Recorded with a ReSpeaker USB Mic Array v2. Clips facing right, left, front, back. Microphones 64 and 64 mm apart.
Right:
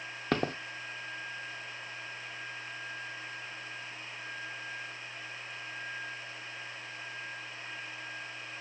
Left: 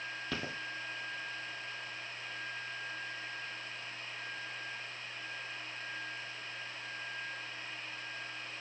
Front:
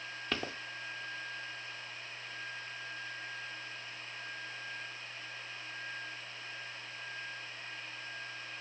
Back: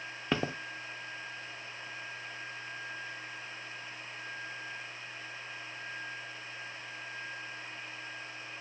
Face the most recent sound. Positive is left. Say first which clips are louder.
# right 11 dB, back 6 dB
turn(degrees=-115)